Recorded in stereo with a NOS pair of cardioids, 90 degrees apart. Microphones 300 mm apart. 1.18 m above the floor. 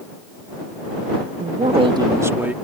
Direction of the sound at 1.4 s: 30° right.